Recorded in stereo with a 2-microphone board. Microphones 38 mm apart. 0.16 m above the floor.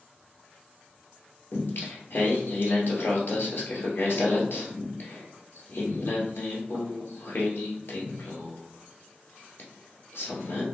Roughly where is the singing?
Left.